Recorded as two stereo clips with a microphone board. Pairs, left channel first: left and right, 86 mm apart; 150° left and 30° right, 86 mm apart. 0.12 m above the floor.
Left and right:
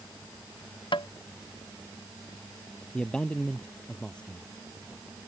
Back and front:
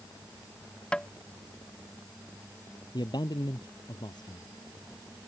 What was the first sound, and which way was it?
Tapping, 70° left.